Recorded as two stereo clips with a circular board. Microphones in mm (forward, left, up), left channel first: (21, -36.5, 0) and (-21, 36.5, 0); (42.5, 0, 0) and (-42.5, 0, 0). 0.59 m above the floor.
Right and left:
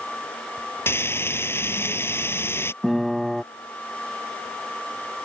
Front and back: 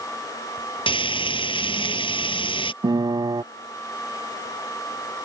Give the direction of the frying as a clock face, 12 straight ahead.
12 o'clock.